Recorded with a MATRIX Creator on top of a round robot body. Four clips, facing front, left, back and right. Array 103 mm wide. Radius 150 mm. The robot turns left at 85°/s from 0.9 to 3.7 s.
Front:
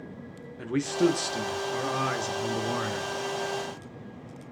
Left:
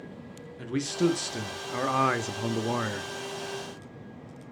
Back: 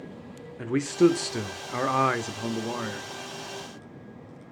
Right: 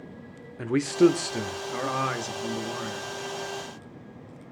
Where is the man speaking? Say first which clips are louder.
Right 7 dB, back 4 dB; 115° right, 1.0 m; by 3.0 s 65° left, 1.0 m.